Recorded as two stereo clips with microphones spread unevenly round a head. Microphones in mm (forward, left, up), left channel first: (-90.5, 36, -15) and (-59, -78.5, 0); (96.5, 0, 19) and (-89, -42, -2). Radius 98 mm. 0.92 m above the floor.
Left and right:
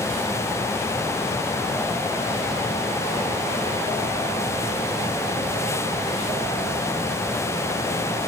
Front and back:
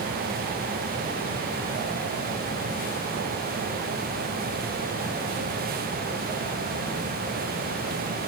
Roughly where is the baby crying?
No baby crying in this recording.